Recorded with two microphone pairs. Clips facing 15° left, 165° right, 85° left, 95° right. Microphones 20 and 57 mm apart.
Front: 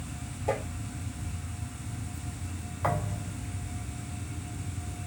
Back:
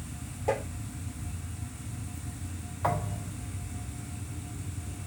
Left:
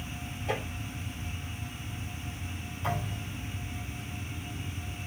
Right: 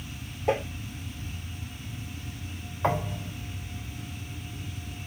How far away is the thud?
About 3.5 m.